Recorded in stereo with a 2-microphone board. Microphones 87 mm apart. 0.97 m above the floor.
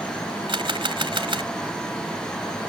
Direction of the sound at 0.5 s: 75° right (ahead or behind).